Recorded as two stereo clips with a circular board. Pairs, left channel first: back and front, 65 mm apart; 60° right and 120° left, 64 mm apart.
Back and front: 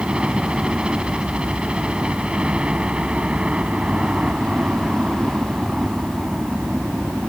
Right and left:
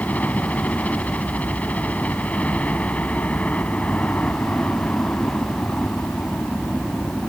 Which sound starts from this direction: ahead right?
A helicopter, at 0.0 s.